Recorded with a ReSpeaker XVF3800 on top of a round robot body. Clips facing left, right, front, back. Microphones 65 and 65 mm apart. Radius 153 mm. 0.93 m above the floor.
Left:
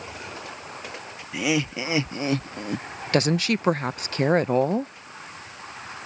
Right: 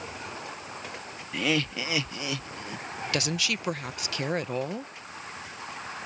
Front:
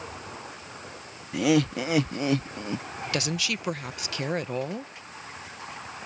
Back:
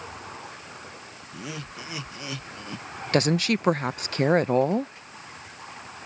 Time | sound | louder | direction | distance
1.3 | laughter | left 3 dB, front 16 dB | 10° left | ?
3.1 | a woman speaking | left 9 dB, back 8 dB | 135° left | ?